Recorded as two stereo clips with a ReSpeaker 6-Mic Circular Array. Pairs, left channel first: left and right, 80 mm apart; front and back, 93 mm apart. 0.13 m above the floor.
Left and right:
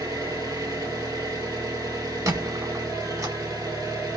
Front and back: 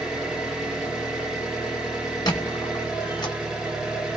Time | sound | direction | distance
0.0 | an engine running | 100° right | 1.6 m
2.3 | a squeak | 45° right | 0.8 m